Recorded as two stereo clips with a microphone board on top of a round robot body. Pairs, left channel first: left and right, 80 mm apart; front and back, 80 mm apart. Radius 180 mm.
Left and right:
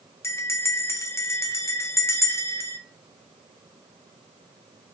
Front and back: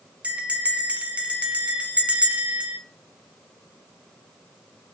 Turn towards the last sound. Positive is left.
turn(degrees=115)